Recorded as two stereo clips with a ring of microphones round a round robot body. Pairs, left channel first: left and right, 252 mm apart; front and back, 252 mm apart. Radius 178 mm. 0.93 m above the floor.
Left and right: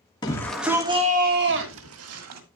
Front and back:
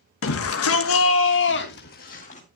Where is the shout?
15° left, 1.6 m; by 2.4 s 70° right, 2 m.